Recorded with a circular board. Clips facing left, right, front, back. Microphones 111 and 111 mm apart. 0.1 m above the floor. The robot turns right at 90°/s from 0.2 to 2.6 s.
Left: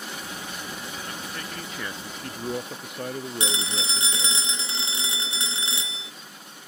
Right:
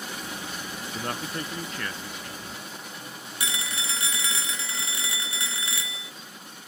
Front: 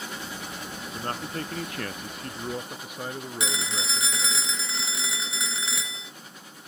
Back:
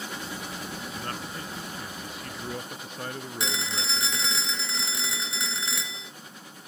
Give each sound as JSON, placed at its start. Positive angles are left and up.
{"t": 0.9, "sound": "a man speaking", "azimuth_deg": -70}
{"t": 3.4, "sound": "a phone ringing", "azimuth_deg": 85}